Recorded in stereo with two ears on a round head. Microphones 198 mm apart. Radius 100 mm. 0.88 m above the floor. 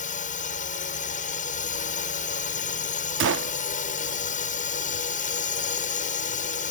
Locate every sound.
0.0 s a drone: 35° left (ahead or behind)
3.2 s a gunshot: 60° right (ahead or behind)